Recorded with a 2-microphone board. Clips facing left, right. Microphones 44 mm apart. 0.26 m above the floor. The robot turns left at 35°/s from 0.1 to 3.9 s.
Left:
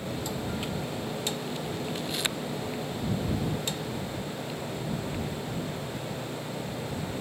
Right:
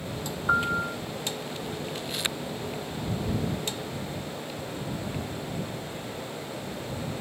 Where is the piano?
75° right (ahead or behind); by 1.0 s 85° right.